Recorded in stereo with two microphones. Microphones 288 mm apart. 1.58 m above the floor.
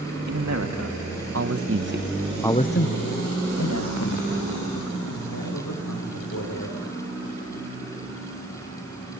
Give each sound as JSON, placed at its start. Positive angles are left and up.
{"t": 0.3, "sound": "a man speaking", "side_deg": -70, "distance_m": 2.5}